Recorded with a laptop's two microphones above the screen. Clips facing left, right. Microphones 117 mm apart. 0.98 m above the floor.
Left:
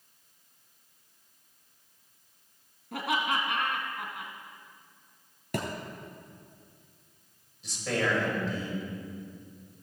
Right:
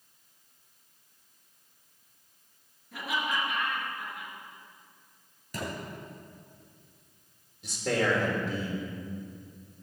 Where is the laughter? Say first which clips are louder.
Left 3 dB; 65° left (ahead or behind), 2.0 m.